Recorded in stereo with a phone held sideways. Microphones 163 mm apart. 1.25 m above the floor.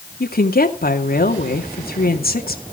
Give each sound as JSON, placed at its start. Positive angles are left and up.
{"t": 0.2, "sound": "a woman speaking", "side_deg": 70, "distance_m": 2.5}